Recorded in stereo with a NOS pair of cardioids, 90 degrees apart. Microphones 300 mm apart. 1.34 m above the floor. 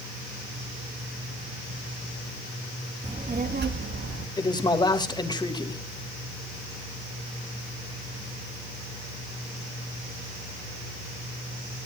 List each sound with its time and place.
3.0 s a child speaking: 20° right, 1.6 m; by 4.3 s 50° right, 1.8 m
4.4 s a man speaking: 15° left, 2.5 m